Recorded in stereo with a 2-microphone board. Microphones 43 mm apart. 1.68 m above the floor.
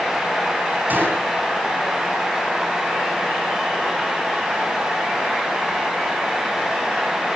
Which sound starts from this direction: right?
A gunshot, at 0.9 s.